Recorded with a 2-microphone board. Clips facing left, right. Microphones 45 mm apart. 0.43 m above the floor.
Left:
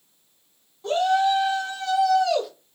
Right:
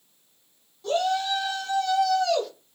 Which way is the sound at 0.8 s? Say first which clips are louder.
Left 4 dB; 30° left (ahead or behind).